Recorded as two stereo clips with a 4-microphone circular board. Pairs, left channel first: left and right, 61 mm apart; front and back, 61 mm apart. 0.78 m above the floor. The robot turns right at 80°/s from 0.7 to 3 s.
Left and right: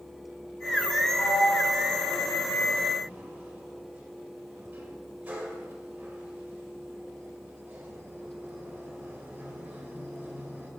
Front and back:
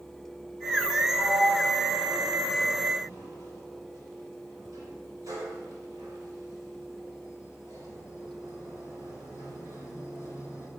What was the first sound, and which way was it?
A sliding door, 50° left.